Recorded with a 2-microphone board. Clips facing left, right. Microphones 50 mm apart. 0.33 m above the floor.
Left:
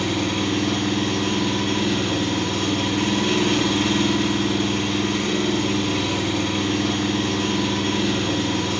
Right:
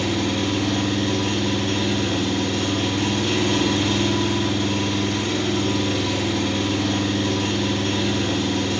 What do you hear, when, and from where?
0.0 s an engine running: 45° left (ahead or behind), 1.6 m